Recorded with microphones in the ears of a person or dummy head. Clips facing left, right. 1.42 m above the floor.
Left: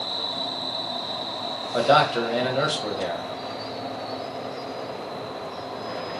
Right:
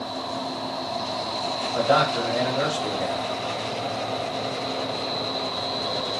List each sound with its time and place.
1.7 s a man speaking: 50° left (ahead or behind), 1.0 m